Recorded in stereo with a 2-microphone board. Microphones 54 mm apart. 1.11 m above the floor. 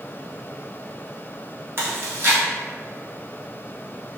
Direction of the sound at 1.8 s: 45° right (ahead or behind).